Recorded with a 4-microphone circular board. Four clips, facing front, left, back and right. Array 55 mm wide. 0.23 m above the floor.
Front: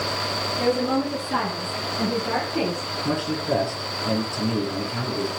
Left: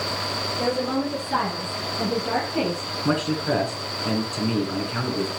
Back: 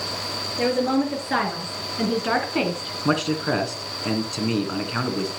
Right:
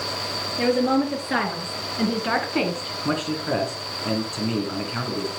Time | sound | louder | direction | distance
0.6 | a woman speaking | right 5 dB, back 2 dB | 125° right | 4.5 m
3.0 | a man speaking | left 2 dB, back 3 dB | 175° left | 2.5 m